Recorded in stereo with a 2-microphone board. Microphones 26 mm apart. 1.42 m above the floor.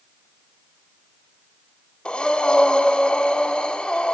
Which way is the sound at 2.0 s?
40° left (ahead or behind).